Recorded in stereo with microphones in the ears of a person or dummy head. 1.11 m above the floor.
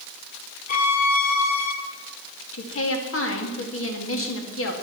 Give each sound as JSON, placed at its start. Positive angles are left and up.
{"t": 0.7, "sound": "a violin", "side_deg": 45, "distance_m": 1.6}
{"t": 2.5, "sound": "a woman speaking", "side_deg": 75, "distance_m": 2.5}